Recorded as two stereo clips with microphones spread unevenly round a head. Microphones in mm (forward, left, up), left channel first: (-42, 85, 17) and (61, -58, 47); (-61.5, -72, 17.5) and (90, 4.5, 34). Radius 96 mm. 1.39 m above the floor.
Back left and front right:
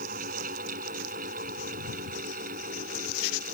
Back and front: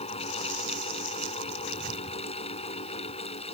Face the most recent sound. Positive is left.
turn(degrees=-100)